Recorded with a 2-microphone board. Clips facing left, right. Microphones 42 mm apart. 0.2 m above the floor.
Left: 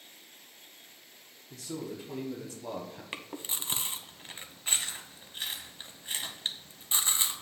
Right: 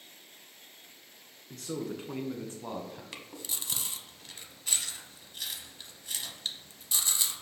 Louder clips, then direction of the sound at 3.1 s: Left 3 dB; 35° left (ahead or behind).